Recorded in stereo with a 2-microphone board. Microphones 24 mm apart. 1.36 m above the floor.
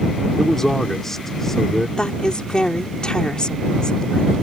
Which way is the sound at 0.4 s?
10° left (ahead or behind).